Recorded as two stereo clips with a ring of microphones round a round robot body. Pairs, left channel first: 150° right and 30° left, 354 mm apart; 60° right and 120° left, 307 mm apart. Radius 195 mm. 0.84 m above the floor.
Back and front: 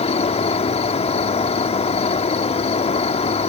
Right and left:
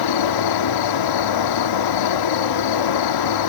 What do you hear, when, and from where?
0.0 s an insect: 75° right